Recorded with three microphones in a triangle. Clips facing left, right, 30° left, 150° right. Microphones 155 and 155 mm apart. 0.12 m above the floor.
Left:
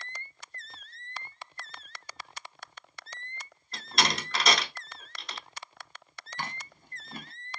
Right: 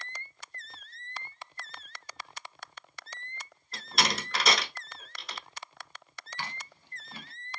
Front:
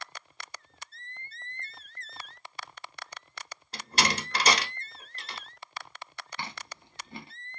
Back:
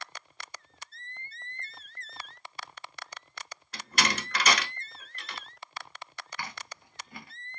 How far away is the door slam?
About 0.9 m.